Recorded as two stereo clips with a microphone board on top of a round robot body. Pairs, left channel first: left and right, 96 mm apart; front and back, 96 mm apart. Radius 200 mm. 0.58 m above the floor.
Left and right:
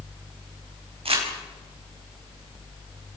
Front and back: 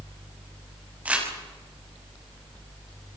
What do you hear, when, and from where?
1.1 s crumpling: 105° right, 6.5 m